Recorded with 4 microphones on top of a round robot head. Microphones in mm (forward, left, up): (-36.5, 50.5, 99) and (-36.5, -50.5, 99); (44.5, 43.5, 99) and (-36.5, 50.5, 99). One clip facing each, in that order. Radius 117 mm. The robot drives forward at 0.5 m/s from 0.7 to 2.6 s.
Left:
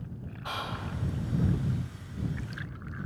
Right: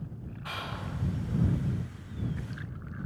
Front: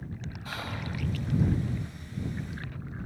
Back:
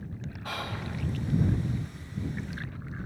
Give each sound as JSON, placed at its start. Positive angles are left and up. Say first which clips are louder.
{"t": 0.5, "sound": "whispering", "louder": "left 3 dB, back 2 dB", "azimuth_deg": 155, "distance_m": 2.0}